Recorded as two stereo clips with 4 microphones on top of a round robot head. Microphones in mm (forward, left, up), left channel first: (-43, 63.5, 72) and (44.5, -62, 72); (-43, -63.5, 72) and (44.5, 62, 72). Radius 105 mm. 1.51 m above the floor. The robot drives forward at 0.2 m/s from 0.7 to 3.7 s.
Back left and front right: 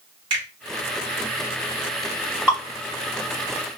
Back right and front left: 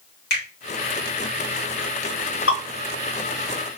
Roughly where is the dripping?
Behind right.